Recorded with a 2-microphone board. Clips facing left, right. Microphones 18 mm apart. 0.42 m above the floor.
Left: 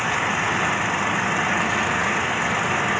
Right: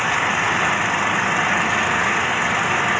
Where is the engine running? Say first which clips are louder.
Right 3 dB; 20° right (ahead or behind).